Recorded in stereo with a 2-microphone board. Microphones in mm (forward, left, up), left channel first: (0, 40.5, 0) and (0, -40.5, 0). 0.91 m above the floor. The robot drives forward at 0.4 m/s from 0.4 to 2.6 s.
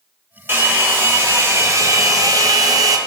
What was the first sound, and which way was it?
A hair dryer, 25° right (ahead or behind).